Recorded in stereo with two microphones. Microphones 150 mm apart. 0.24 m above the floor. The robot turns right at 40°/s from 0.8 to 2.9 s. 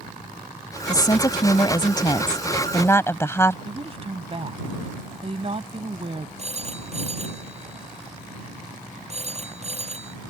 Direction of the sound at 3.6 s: 40° right (ahead or behind).